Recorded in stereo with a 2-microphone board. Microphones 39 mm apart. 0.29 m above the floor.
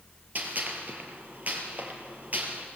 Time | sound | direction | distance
0.3 | a gunshot | 45° right (ahead or behind) | 3.5 m